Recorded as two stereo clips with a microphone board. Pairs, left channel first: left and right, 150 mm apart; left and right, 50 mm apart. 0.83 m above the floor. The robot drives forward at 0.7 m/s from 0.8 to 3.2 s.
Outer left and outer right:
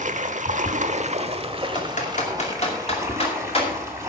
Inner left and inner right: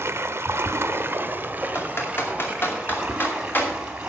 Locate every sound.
0.0 s running water: 55° right (ahead or behind), 0.9 m; by 4.1 s 20° right (ahead or behind), 2 m
1.8 s typing on a keyboard: 55° left (ahead or behind), 2 m; by 4.1 s 40° left (ahead or behind), 3 m